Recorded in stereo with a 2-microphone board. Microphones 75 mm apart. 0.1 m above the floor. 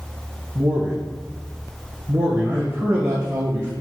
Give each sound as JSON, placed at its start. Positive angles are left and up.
{"t": 0.6, "sound": "a man speaking", "side_deg": -25, "distance_m": 2.5}